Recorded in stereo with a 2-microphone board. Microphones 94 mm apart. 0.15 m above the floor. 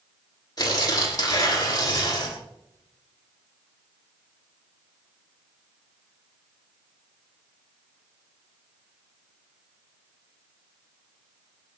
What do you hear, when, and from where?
0.6 s tearing paper: 40° left (ahead or behind), 6.5 m